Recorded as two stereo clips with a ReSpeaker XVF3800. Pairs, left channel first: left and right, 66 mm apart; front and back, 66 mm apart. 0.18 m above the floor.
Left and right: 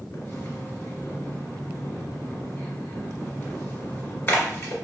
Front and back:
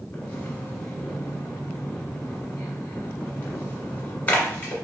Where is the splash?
50° left, 1.3 m.